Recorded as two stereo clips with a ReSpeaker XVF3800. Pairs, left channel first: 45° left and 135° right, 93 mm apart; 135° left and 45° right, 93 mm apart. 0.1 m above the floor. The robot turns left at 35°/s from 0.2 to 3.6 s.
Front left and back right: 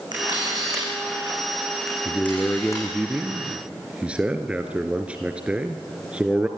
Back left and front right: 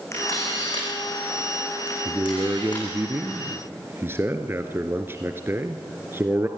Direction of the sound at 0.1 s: 170° right.